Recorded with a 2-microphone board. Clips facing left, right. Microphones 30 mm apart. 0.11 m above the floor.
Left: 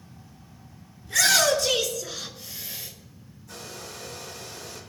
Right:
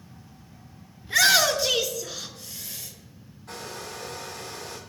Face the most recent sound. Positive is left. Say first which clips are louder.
# right 3 dB
turn(degrees=-65)  # may be behind; listen again after turning